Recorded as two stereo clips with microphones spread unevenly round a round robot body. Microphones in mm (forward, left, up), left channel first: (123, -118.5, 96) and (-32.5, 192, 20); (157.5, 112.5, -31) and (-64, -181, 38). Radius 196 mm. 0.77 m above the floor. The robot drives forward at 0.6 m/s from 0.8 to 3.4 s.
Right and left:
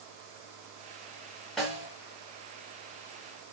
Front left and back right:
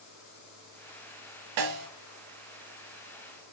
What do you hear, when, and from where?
1.6 s a snare drum: 145° right, 0.9 m; by 1.9 s 150° right, 1.1 m